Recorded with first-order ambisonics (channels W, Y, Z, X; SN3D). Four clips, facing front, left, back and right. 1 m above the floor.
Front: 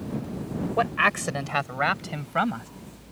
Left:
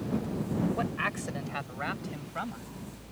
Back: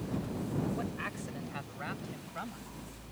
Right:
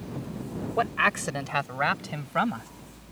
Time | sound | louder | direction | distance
0.8 | a man speaking | right 7 dB, front 15 dB | 25° right | ?